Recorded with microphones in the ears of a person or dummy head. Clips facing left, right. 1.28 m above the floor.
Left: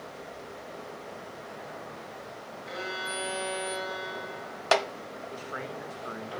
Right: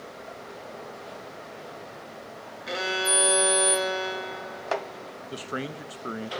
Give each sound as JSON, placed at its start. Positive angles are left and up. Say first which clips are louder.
{"t": 2.7, "sound": "a violin", "louder": "right 9 dB", "side_deg": -70, "distance_m": 1.7}
{"t": 5.3, "sound": "a man speaking", "louder": "right 7 dB", "side_deg": -40, "distance_m": 1.3}